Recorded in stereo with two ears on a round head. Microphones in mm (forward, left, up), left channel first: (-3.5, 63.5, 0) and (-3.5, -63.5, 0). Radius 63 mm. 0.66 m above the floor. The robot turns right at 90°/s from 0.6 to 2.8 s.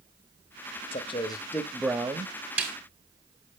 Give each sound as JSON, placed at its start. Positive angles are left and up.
{"t": 0.9, "sound": "a man speaking", "azimuth_deg": 100, "distance_m": 0.7}
{"t": 2.6, "sound": "a snare drum", "side_deg": -5, "distance_m": 2.0}